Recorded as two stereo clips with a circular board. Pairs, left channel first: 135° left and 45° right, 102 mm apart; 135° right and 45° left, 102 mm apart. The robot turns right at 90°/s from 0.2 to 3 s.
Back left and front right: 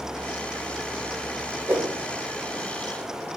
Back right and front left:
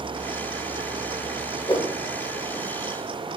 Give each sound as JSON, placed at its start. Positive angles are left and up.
{"t": 1.7, "sound": "a whoosh", "azimuth_deg": -115, "distance_m": 0.8}